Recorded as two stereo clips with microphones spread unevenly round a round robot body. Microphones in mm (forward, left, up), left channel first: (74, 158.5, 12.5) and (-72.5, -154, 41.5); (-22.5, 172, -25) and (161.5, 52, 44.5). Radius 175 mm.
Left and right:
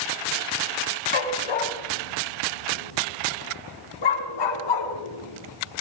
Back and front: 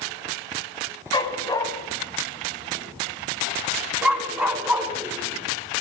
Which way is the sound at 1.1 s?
75° left.